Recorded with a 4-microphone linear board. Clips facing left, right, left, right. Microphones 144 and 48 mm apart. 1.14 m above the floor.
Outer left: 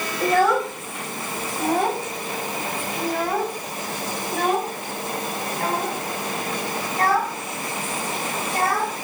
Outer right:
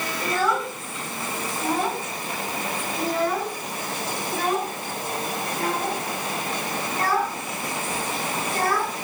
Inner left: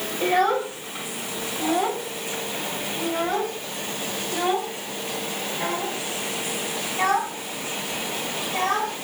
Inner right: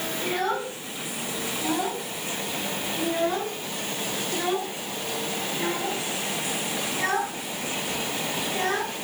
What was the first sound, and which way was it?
A child speaking, 65° left (ahead or behind).